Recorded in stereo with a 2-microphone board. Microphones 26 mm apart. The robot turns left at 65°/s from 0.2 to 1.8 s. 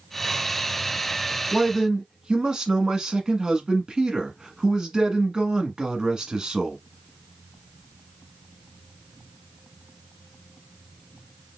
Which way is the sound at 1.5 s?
20° right (ahead or behind).